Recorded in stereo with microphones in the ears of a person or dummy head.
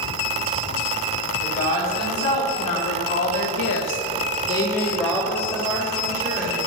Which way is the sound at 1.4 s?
40° left (ahead or behind).